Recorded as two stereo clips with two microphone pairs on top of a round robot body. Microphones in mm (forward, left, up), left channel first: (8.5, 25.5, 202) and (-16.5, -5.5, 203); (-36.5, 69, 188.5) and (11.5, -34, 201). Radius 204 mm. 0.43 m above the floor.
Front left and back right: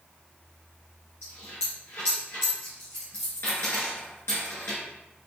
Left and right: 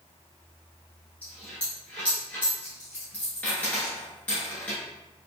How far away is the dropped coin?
About 0.8 m.